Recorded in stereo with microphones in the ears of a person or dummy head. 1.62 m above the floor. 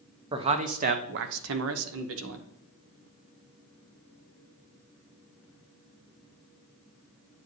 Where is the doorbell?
No doorbell in this recording.